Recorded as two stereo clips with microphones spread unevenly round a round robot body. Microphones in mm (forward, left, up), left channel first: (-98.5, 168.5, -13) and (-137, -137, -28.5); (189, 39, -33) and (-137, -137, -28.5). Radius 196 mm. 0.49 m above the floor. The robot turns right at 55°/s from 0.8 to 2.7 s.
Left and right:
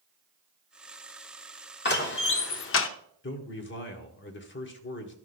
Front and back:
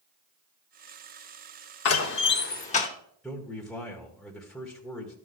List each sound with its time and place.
1.9 s a door slam: 40° left, 0.7 m; by 2.9 s 90° left, 0.7 m
3.2 s a man speaking: 115° left, 1.4 m